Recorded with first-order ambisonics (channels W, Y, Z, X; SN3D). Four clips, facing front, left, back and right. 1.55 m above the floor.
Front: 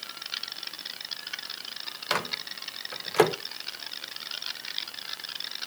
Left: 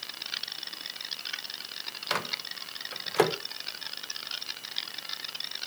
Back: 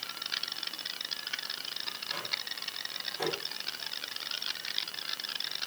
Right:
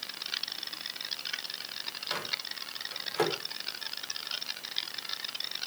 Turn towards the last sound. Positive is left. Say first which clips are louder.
# left 4 dB, front 8 dB
turn(degrees=25)